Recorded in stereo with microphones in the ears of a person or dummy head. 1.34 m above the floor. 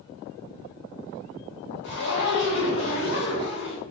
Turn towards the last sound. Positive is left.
turn(degrees=60)  # may be behind; listen again after turning